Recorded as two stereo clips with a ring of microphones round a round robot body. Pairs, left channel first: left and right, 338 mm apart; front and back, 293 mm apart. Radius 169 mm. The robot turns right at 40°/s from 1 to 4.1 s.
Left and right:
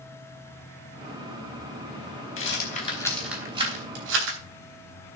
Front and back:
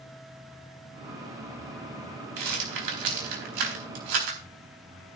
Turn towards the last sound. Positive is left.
turn(degrees=-145)